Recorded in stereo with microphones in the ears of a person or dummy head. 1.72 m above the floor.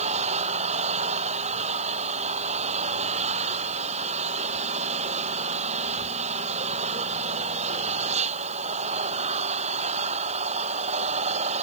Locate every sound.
0.0 s an engine running: 30° right (ahead or behind)